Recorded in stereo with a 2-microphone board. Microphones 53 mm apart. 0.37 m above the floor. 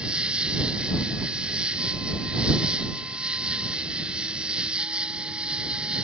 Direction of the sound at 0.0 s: 20° right (ahead or behind).